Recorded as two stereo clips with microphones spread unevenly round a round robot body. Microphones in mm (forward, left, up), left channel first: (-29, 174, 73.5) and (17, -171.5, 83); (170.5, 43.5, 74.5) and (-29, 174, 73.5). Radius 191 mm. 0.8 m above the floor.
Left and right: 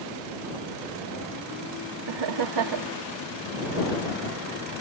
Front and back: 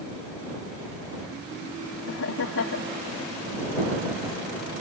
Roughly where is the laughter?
Ahead right.